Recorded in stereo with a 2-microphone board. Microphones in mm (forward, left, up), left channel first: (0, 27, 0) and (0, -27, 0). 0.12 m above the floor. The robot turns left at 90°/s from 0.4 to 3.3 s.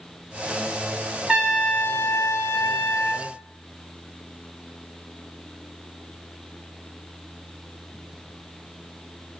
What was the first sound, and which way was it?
A trumpet, 165° right.